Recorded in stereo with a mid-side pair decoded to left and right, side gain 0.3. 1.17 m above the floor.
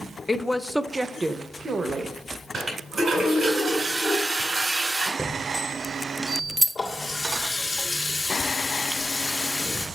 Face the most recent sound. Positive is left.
turn(degrees=45)